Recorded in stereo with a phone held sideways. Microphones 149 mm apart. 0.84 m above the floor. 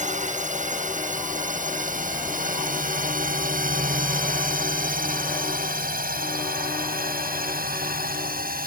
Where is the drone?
55° right (ahead or behind); by 8.7 s 80° right.